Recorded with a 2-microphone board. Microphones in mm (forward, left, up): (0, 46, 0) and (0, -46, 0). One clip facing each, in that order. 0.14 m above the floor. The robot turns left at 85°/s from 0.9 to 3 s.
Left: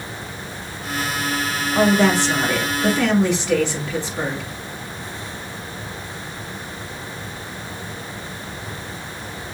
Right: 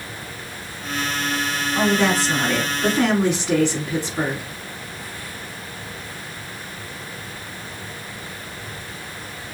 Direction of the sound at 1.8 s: 15° left (ahead or behind).